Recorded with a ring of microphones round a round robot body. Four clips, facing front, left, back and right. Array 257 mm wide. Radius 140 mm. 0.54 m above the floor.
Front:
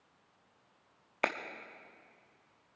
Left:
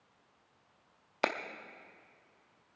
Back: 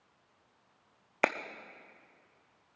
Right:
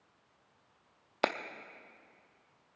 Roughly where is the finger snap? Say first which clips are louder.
Right 1 dB, back 4 dB; behind right.